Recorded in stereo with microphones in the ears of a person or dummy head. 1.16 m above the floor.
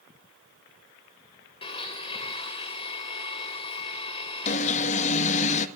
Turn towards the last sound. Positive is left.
turn(degrees=45)  # may be behind; listen again after turning